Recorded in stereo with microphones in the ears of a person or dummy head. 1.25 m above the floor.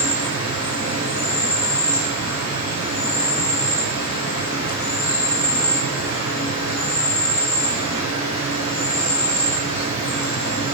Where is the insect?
80° left, 1.2 m.